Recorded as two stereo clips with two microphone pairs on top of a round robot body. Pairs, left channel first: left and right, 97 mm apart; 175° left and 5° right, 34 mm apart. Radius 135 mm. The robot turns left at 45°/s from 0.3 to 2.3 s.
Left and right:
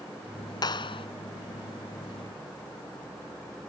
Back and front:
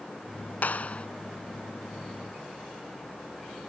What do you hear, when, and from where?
0.6 s a clap: 135° left; by 1.1 s 115° left